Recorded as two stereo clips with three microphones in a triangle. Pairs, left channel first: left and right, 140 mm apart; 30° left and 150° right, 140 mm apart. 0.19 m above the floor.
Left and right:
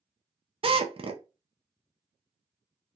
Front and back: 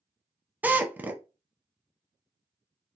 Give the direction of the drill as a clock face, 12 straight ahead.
3 o'clock.